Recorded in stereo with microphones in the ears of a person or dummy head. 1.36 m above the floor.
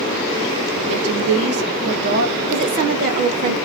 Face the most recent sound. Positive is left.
turn(degrees=-30)  # may be behind; listen again after turning